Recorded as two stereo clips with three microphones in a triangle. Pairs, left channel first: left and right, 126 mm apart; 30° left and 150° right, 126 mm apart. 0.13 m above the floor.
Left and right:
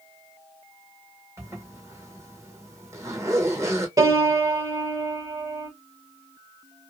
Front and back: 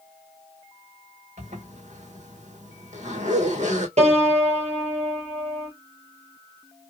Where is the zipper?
155° right, 1.4 m.